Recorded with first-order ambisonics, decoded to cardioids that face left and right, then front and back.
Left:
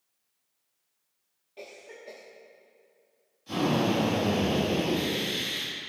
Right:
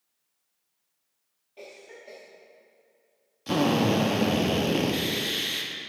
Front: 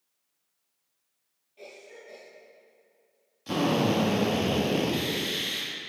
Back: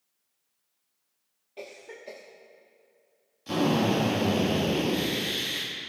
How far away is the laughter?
I don't hear laughter.